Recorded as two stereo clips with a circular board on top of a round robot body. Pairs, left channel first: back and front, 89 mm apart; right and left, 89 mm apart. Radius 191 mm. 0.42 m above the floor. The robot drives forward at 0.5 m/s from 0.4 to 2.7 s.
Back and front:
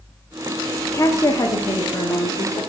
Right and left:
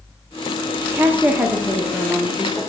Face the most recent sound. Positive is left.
turn(degrees=165)